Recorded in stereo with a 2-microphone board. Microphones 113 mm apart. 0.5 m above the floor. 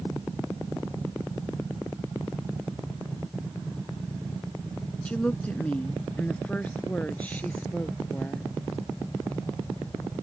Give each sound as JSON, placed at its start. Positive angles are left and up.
{"t": 5.0, "sound": "a woman speaking", "side_deg": 10}